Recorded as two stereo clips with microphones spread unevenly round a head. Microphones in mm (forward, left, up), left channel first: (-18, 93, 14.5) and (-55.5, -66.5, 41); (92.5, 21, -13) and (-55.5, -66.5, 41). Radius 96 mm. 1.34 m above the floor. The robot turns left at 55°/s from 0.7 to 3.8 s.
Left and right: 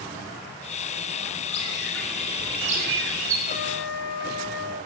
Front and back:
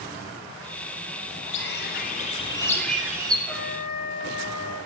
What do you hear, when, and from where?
1.5 s a bird: 15° left, 3 m; by 3.4 s 85° right, 3 m
3.5 s a trumpet: 120° left, 7 m; by 4.8 s 100° left, 7 m